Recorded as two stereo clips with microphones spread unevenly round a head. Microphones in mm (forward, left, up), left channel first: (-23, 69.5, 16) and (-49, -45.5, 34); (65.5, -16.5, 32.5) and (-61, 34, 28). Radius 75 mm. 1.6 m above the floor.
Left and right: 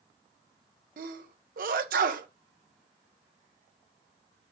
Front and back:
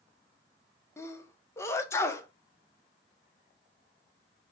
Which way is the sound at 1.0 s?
95° right.